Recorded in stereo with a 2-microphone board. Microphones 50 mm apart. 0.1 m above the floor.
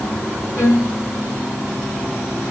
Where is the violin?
55° left (ahead or behind), 2.5 m.